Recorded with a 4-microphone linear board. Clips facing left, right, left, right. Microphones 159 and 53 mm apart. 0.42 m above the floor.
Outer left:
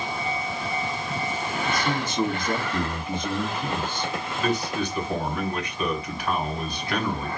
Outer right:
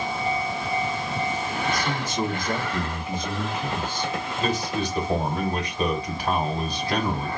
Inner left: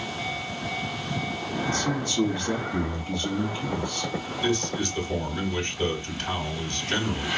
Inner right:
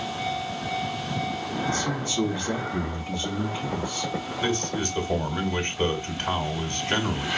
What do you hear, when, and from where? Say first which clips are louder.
1.7 s a man speaking: outer left 2 dB, inner left 2 dB; 10° right (ahead or behind), 3.5 m
4.4 s a man speaking: outer left 1 dB, inner left 1 dB; 35° right (ahead or behind), 1.7 m